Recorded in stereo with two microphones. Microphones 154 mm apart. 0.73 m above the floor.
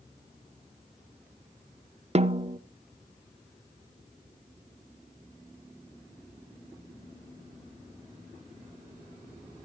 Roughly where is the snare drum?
Right.